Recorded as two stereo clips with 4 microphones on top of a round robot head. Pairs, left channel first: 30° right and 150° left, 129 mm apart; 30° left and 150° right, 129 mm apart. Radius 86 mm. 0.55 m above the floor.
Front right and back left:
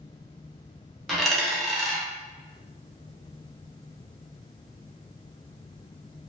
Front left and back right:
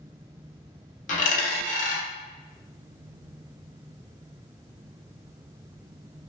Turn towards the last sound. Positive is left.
turn(degrees=60)